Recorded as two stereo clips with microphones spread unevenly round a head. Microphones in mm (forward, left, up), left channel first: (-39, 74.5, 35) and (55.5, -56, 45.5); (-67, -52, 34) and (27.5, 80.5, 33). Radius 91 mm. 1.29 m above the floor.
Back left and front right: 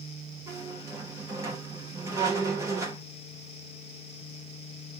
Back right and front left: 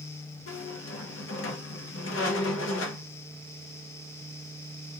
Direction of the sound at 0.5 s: 125° right.